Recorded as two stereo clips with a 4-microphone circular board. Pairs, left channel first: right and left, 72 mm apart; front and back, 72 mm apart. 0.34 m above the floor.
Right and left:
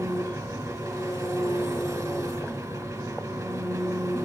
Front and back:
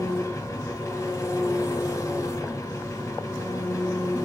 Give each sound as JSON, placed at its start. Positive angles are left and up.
{"t": 0.0, "sound": "an engine running", "azimuth_deg": 50, "distance_m": 2.5}